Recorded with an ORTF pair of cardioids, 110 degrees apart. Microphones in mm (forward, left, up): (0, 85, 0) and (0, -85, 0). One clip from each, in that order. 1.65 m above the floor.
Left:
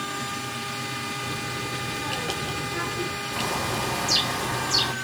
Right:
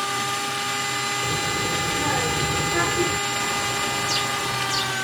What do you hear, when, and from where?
0.0 s a machine running: 40° right
1.2 s a child speaking: 50° right
3.3 s a bird: 20° left